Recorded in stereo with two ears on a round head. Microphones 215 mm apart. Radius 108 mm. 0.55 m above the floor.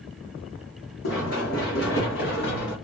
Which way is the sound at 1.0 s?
55° left (ahead or behind).